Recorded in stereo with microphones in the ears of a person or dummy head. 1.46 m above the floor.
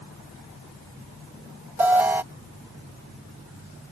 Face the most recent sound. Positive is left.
turn(degrees=-10)  # may be behind; listen again after turning